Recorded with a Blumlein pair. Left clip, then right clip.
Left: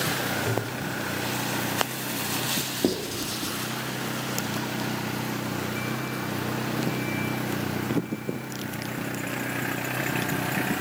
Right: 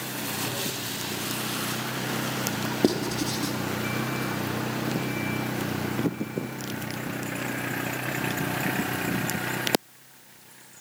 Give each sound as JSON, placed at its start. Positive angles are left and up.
{"t": 0.5, "sound": "tapping", "azimuth_deg": 30, "distance_m": 3.5}
{"t": 2.8, "sound": "writing", "azimuth_deg": -10, "distance_m": 2.0}